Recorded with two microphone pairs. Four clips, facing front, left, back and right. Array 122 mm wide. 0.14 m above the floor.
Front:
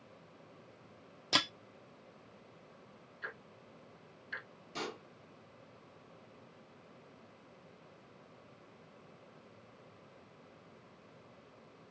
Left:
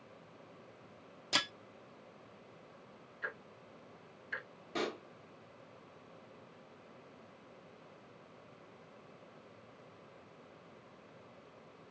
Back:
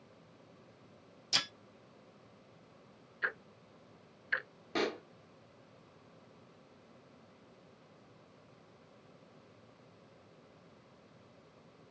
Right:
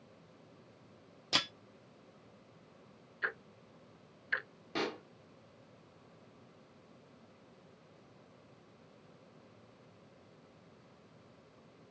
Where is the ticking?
145° right, 0.5 m.